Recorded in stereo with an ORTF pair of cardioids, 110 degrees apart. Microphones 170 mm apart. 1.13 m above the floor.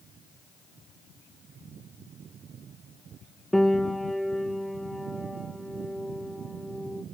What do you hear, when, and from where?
3.5 s a piano: straight ahead, 0.6 m